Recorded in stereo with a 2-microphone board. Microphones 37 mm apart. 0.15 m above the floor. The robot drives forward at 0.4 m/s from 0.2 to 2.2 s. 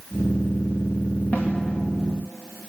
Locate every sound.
1.3 s a snare drum: 45° left (ahead or behind), 6 m